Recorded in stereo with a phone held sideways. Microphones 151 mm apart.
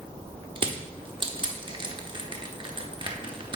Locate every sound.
0.6 s crushing: 35° right (ahead or behind), 0.9 m